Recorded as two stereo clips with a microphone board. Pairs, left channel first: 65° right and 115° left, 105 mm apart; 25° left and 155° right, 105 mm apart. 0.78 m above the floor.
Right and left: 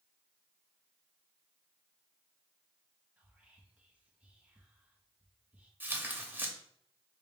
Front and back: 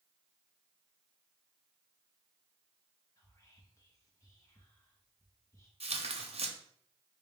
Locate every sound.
3.2 s whispering: 50° left, 0.5 m
5.8 s tearing paper: 175° right, 0.6 m